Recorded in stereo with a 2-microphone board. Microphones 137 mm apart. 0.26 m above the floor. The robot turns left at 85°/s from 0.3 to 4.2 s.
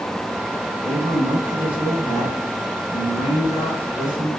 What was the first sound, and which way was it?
A man speaking, 90° right.